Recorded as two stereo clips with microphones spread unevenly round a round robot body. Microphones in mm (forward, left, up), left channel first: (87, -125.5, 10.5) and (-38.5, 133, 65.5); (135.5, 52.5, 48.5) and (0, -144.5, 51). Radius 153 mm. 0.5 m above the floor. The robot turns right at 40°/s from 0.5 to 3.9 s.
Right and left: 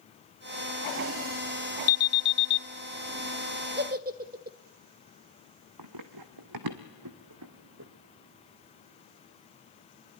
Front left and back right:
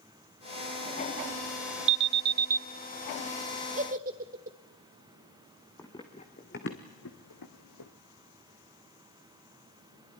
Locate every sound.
1.9 s an alarm: 105° right, 0.6 m; by 2.6 s 75° right, 0.6 m
3.8 s a giggle: 175° left, 1.3 m; by 4.6 s straight behind, 1.3 m
5.8 s running footsteps: 135° left, 1.8 m; by 7.9 s 75° left, 1.9 m